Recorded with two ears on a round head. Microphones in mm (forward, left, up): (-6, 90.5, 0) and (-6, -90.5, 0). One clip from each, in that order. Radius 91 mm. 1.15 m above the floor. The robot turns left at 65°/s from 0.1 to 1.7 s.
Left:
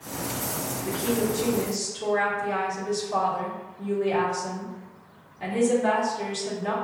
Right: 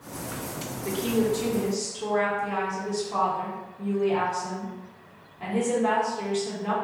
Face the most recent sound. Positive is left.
turn(degrees=180)